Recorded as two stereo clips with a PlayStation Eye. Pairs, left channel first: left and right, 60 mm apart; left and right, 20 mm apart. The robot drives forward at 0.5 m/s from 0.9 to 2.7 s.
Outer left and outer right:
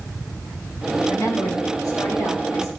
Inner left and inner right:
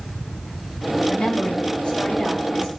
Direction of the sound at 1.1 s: 85° left.